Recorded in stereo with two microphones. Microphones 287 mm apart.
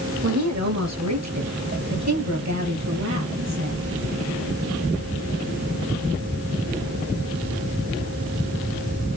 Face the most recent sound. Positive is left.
turn(degrees=-70)  # may be behind; listen again after turning